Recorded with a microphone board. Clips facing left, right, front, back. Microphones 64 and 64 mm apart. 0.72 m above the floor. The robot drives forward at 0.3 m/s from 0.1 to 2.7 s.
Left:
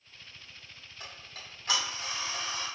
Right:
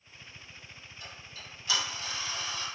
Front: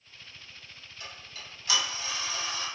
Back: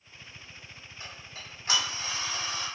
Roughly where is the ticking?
Behind left.